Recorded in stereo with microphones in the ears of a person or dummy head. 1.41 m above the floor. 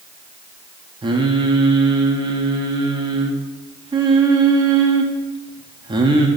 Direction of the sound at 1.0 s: 25° right (ahead or behind).